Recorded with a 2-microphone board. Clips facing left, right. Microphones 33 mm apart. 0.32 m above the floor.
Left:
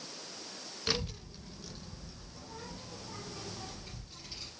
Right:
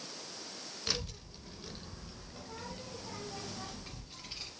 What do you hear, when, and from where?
0.9 s a child speaking: 20° left (ahead or behind), 0.6 m; by 4.5 s 70° right (ahead or behind), 1.7 m